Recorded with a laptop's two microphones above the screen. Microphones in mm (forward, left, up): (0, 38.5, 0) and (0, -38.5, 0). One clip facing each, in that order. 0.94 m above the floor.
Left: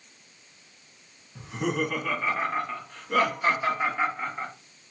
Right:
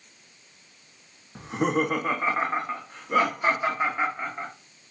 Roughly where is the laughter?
Right.